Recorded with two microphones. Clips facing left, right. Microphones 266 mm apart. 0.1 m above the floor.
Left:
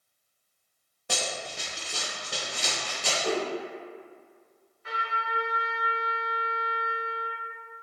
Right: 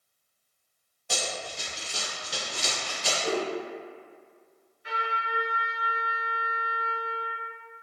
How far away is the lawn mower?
I don't hear a lawn mower.